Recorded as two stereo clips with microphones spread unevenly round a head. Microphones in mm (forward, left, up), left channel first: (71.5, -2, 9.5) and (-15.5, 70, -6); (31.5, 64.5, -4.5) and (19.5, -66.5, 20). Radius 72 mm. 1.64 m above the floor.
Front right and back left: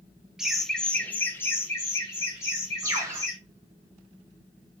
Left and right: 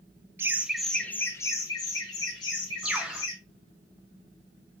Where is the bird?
155° right, 0.7 m.